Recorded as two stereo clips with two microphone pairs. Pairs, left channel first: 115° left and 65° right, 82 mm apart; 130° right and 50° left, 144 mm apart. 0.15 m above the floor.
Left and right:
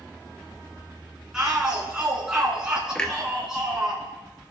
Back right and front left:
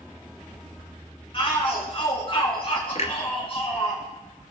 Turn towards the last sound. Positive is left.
turn(degrees=-170)